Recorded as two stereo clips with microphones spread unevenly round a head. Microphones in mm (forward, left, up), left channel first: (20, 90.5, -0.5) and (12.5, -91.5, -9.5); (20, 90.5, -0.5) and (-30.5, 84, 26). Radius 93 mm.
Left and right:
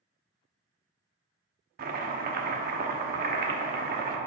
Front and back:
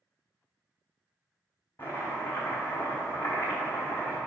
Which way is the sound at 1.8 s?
75° right.